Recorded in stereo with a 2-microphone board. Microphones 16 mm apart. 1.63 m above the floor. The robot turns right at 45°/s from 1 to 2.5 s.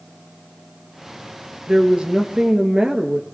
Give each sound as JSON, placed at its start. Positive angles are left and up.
{"t": 1.7, "sound": "a woman speaking", "azimuth_deg": -115, "distance_m": 2.5}